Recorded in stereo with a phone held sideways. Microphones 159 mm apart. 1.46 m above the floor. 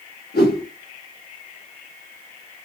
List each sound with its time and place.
0.3 s a whoosh: 80° left, 1.2 m